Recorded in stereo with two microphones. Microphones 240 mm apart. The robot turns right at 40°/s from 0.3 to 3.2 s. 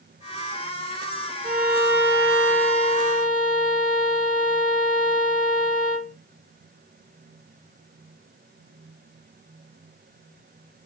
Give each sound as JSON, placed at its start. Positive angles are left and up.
{"t": 1.4, "sound": "a violin", "azimuth_deg": -145, "distance_m": 2.0}